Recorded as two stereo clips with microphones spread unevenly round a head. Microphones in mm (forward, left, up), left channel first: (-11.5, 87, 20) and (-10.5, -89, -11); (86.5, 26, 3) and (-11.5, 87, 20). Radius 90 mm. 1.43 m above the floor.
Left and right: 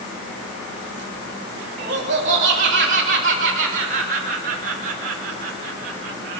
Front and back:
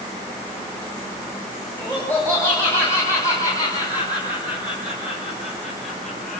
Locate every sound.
1.8 s laughter: 140° right, 5.5 m; by 6.4 s 120° right, 1.7 m